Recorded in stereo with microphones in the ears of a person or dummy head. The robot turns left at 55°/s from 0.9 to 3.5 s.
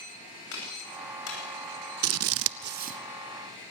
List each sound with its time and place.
0.5 s a clap: 65° left (ahead or behind), 9.5 m; by 1.4 s 85° left, 9.5 m
2.0 s scissors: 75° right (ahead or behind), 0.6 m; by 3.0 s 30° right (ahead or behind), 0.6 m